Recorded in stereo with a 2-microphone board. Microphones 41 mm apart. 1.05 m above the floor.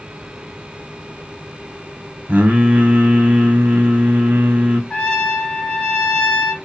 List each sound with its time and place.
2.3 s singing: 45° right (ahead or behind), 0.8 m
4.9 s a trumpet: 25° left (ahead or behind), 1.5 m